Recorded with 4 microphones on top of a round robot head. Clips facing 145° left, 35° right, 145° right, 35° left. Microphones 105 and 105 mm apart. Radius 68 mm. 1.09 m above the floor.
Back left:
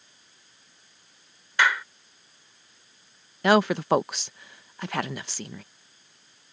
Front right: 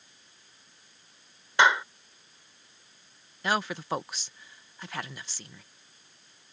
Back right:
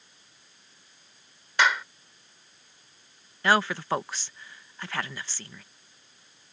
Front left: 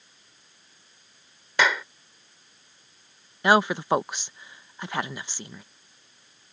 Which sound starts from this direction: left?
A woman speaking, at 3.4 s.